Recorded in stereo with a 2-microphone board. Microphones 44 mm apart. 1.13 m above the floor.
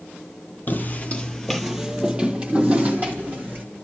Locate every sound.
0.7 s footsteps: 45° left (ahead or behind), 1.5 m; by 3.6 s 40° right (ahead or behind), 3.5 m